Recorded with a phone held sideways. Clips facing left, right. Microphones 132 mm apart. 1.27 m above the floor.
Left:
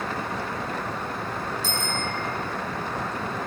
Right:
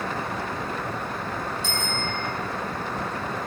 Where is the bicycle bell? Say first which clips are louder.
Even; 40° left (ahead or behind), 7 m.